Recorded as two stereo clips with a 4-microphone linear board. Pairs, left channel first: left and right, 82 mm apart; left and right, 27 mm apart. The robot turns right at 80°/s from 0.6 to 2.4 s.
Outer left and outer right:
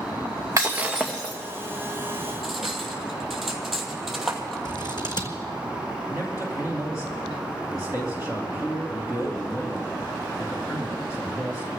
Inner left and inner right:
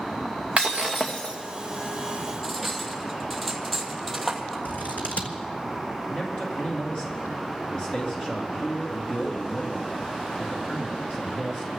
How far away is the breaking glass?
About 2 m.